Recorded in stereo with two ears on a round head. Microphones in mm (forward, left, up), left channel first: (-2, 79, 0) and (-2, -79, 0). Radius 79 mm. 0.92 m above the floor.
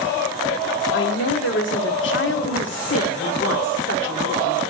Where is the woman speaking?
70° left (ahead or behind), 1.9 m.